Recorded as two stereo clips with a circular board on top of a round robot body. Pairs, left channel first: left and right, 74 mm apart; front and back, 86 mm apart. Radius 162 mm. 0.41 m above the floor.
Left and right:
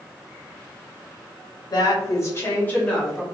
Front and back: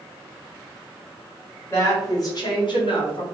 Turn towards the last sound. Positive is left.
turn(degrees=5)